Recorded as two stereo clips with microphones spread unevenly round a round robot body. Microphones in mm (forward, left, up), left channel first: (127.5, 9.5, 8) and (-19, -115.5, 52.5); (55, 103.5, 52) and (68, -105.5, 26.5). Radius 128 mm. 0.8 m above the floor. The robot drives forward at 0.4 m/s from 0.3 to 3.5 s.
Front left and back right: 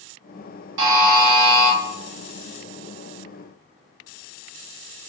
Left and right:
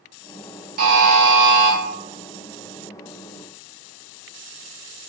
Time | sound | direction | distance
0.8 | a buzzer | 145° right | 0.9 m